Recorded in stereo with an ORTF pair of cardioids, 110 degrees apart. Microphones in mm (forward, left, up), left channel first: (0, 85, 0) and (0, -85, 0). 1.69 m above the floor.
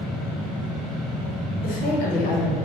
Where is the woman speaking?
65° left, 1.3 m.